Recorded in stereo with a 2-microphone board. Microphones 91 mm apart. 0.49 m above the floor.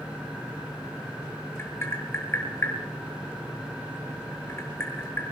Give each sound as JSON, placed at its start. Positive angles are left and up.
{"t": 1.6, "sound": "tapping", "side_deg": 25, "distance_m": 6.5}